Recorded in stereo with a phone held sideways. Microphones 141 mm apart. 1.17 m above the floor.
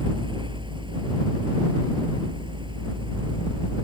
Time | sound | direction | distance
0.0 | a fan | 35° right (ahead or behind) | ?